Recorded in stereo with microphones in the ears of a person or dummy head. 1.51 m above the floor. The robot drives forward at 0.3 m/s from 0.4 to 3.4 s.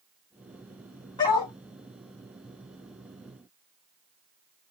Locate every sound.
1.2 s a dog barking: 20° left (ahead or behind), 2.0 m